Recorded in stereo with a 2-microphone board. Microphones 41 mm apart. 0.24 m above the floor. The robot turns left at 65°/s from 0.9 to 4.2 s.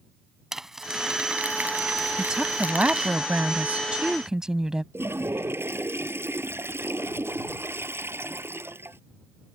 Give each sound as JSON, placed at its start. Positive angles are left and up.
{"t": 0.5, "sound": "crumpling", "azimuth_deg": -10}
{"t": 2.2, "sound": "a woman speaking", "azimuth_deg": -20}
{"t": 4.9, "sound": "a toilet flushing", "side_deg": -75}